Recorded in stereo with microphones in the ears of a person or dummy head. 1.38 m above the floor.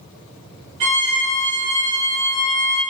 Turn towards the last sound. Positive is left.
turn(degrees=-30)  # may be behind; listen again after turning